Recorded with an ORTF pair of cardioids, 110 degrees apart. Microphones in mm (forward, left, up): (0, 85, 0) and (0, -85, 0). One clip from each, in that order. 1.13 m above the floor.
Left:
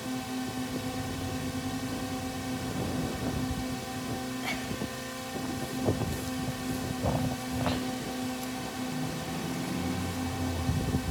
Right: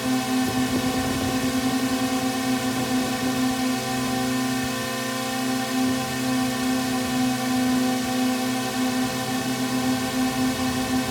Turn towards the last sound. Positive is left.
turn(degrees=-65)